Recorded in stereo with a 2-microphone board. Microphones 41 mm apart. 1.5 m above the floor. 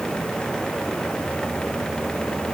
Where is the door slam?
No door slam in this recording.